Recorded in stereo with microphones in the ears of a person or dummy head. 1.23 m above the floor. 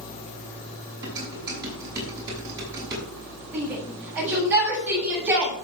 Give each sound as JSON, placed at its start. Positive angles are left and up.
{"t": 1.0, "sound": "dishes clattering", "side_deg": -15, "distance_m": 6.5}
{"t": 3.5, "sound": "a shout", "side_deg": -10, "distance_m": 8.0}